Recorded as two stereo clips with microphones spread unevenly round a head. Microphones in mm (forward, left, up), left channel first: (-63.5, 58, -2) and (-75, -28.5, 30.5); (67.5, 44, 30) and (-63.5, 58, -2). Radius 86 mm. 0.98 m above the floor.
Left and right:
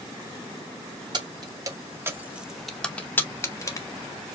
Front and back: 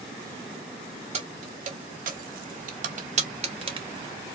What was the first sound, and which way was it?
Keys jangling, 140° right.